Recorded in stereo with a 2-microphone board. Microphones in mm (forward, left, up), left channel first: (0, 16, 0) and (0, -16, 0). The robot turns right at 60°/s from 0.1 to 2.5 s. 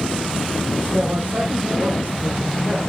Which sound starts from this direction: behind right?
A man speaking, at 0.9 s.